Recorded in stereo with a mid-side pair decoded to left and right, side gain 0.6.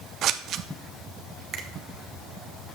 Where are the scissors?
55° right, 0.6 m.